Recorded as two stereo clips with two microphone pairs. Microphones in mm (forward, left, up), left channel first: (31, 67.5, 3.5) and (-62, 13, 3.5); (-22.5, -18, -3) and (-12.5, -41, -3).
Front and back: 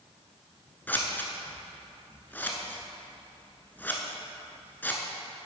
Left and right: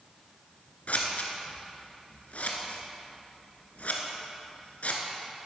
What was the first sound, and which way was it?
Scissors, 105° left.